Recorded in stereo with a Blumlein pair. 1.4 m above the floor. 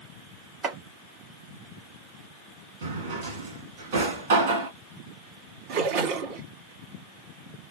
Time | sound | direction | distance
0.6 | chopping | 20° right | 1.4 m
2.8 | a drawer | 50° right | 1.6 m
5.7 | a splash | 45° right | 1.9 m